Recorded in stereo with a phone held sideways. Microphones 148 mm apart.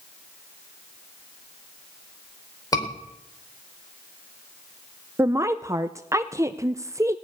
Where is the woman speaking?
20° right (ahead or behind), 0.5 m.